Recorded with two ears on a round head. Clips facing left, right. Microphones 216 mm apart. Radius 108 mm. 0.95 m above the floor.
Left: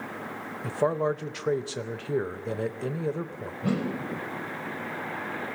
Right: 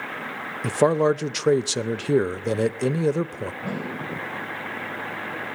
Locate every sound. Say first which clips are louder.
0.6 s a man speaking: right 7 dB; 55° right (ahead or behind), 0.5 m
3.6 s a whoosh: left 7 dB; 30° left (ahead or behind), 3.5 m